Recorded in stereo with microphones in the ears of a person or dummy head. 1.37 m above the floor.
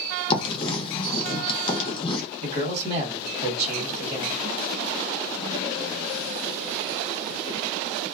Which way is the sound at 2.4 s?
40° right (ahead or behind).